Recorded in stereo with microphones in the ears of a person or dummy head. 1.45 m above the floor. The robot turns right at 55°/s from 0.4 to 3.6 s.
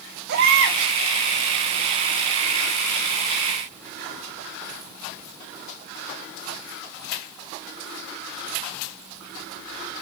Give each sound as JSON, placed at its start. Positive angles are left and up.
{"t": 0.3, "sound": "a baby crying", "side_deg": -70, "distance_m": 1.9}